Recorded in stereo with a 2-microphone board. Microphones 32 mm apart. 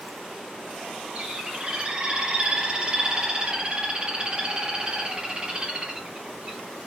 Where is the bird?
25° right (ahead or behind), 1.6 m.